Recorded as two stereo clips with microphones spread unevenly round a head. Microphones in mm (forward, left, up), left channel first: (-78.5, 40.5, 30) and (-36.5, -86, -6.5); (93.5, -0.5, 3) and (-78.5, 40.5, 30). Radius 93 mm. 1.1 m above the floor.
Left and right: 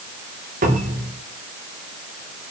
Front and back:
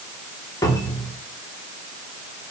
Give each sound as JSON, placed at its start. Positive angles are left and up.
{"t": 0.6, "sound": "a cupboard door", "azimuth_deg": -85, "distance_m": 3.5}